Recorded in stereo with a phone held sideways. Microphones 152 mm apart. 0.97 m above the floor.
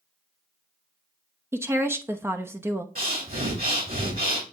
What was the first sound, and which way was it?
A woman speaking, 15° right (ahead or behind).